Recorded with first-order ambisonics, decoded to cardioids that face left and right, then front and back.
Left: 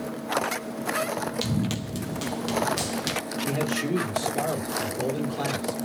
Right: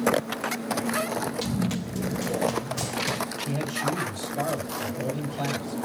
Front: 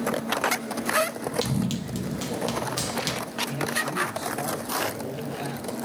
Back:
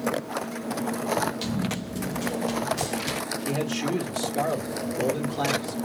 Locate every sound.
1.4 s running footsteps: 60° left, 1.6 m; by 3.2 s 45° left, 2.5 m
3.5 s a man speaking: 145° left, 2 m